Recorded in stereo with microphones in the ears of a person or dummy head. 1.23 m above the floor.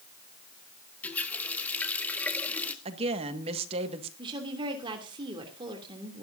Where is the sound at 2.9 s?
30° right (ahead or behind), 1.7 m.